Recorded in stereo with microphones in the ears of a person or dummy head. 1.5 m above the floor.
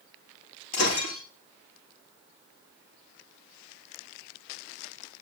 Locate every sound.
0.7 s breaking glass: 40° left (ahead or behind), 9.5 m